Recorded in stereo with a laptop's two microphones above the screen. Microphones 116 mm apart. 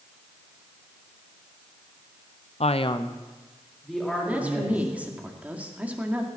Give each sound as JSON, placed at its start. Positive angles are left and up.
{"t": 2.6, "sound": "a man speaking", "side_deg": 60, "distance_m": 0.6}
{"t": 4.3, "sound": "a woman speaking", "side_deg": -10, "distance_m": 2.0}